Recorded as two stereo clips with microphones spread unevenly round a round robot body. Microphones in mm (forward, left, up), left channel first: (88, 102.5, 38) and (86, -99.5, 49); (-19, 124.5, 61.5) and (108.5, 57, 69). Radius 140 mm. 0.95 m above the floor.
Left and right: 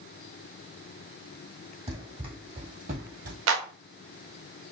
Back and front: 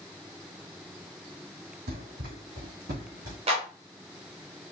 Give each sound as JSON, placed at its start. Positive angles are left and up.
{"t": 1.9, "sound": "running footsteps", "azimuth_deg": -30, "distance_m": 2.5}
{"t": 3.5, "sound": "a clap", "azimuth_deg": -85, "distance_m": 1.1}